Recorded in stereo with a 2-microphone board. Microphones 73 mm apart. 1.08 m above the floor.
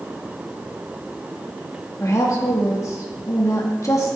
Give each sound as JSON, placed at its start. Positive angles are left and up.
{"t": 2.0, "sound": "a woman speaking", "side_deg": 45, "distance_m": 1.7}